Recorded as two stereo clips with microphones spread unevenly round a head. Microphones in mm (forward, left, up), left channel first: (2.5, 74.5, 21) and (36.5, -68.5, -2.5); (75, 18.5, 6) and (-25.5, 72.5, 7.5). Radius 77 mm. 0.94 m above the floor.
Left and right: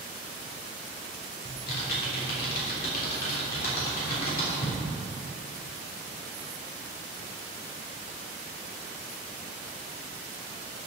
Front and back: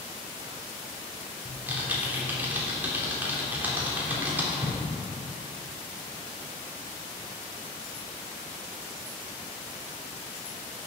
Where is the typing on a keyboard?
75° left, 3.5 m.